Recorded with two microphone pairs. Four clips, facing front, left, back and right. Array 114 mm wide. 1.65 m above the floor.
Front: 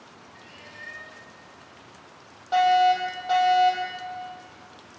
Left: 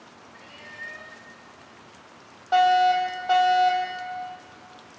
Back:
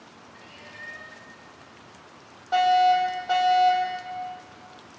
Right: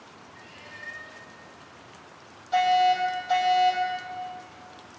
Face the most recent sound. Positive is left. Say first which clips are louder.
# left 3 dB, even
turn(degrees=70)